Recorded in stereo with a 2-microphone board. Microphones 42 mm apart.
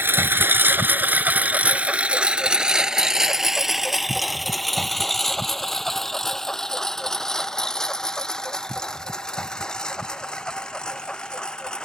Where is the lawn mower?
65° right (ahead or behind); by 11.8 s 20° left (ahead or behind).